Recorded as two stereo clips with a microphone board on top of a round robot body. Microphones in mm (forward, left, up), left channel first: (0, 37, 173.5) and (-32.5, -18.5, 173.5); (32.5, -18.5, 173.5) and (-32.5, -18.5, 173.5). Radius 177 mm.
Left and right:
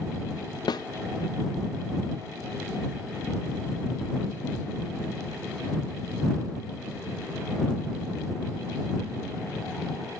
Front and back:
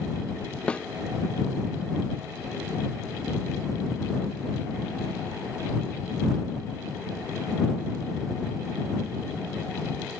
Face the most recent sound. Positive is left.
turn(degrees=75)